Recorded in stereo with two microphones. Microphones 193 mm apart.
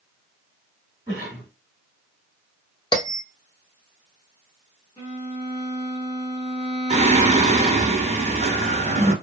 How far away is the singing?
About 0.6 m.